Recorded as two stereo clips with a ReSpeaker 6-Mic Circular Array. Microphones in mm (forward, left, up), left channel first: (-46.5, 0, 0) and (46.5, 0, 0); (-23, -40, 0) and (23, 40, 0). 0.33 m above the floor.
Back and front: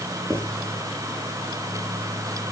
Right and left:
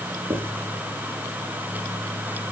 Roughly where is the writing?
Ahead left.